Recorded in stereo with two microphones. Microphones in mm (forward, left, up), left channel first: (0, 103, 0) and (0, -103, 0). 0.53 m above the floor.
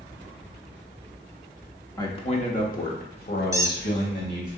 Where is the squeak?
15° right (ahead or behind), 0.6 m.